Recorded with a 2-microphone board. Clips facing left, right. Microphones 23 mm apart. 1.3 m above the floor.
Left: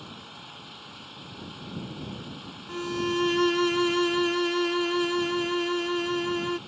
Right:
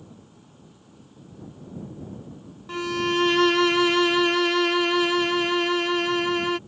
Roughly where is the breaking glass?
No breaking glass in this recording.